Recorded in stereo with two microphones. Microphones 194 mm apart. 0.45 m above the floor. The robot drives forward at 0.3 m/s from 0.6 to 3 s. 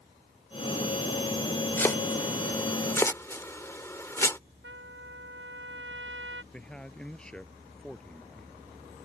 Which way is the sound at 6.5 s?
5° left (ahead or behind).